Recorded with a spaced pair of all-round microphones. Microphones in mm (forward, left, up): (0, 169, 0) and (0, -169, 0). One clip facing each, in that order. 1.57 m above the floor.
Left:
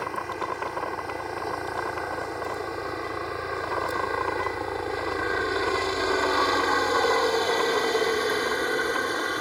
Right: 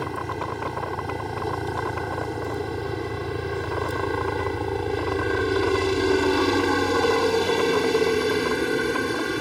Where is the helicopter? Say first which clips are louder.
Right 3 dB; 45° right (ahead or behind); by 9.4 s 35° right (ahead or behind).